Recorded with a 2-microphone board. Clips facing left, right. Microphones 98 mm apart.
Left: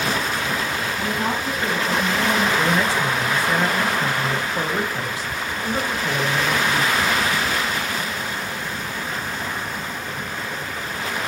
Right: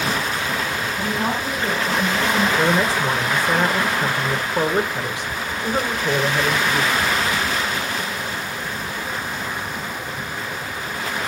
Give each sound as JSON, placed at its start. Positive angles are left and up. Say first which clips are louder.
{"t": 1.0, "sound": "a woman speaking", "louder": "right 2 dB", "side_deg": -15, "distance_m": 6.0}
{"t": 2.6, "sound": "a man speaking", "louder": "right 1 dB", "side_deg": -20, "distance_m": 1.6}